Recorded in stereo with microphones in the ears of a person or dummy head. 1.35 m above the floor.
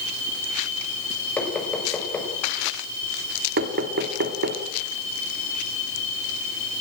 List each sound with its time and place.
1.4 s knocking: 10° left (ahead or behind), 5 m
3.6 s knocking: 55° right (ahead or behind), 2 m